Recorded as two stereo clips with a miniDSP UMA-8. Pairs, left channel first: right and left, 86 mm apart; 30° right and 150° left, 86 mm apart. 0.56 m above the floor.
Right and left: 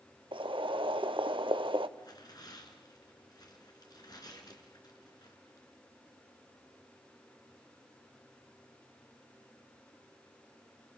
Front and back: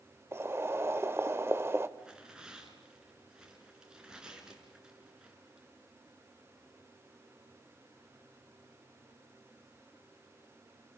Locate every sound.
0.3 s boiling: 90° left, 0.8 m
2.0 s tearing paper: 130° right, 3.5 m